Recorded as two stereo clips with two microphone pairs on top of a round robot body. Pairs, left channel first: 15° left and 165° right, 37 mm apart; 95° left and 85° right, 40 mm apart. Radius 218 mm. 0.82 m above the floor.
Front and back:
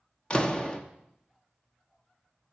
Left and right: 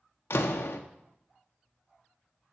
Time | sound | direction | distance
0.3 | a door slam | 85° left | 1.0 m